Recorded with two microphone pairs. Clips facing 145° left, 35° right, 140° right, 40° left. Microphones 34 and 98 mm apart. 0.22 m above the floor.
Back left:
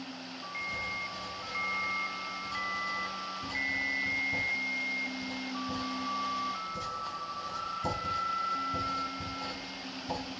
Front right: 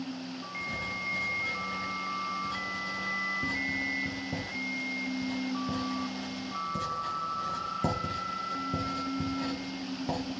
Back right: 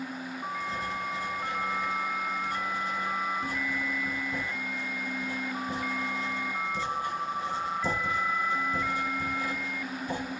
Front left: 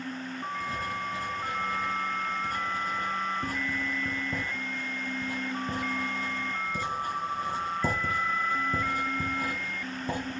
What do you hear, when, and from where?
0.6 s writing: 5° right, 3 m